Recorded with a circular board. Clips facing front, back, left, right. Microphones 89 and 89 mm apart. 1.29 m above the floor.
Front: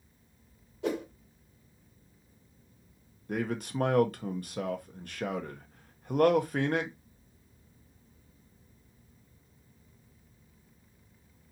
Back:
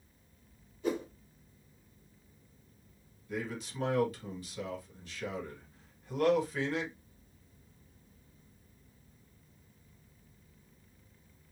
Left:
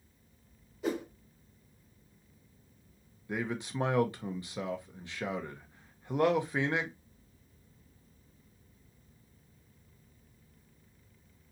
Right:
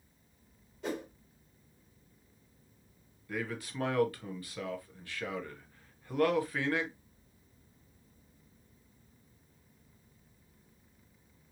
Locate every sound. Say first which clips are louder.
0.8 s a whoosh: front 1 dB, left 4 dB; 5° left, 1.3 m
3.3 s a man speaking: front 6 dB, left 3 dB; 25° left, 0.8 m